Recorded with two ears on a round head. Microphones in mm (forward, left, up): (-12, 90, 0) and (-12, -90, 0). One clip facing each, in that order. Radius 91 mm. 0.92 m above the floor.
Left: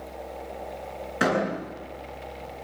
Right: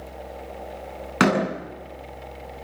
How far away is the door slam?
About 8 m.